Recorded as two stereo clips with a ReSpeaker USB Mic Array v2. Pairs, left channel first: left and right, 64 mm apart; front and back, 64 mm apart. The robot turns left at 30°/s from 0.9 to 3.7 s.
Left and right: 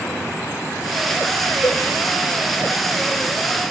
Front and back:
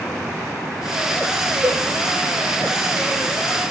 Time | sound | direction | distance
1.6 | a cowbell | 120° left | 0.9 m